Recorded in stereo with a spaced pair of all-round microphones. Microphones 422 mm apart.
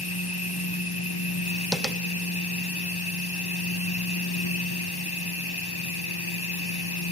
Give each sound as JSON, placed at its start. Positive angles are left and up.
{"t": 0.0, "sound": "a machine running", "side_deg": 60, "distance_m": 1.0}
{"t": 1.7, "sound": "tapping", "side_deg": 0, "distance_m": 1.0}